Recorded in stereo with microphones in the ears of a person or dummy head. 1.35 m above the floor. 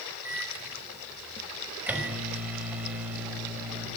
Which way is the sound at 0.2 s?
10° right (ahead or behind).